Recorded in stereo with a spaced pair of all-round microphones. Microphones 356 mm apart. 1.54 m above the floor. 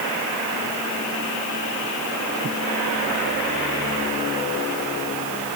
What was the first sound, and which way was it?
Only background noise.